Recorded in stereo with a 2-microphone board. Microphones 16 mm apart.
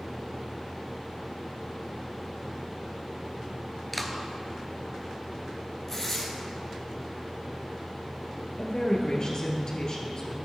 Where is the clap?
Centre (ahead or behind), 1.1 m.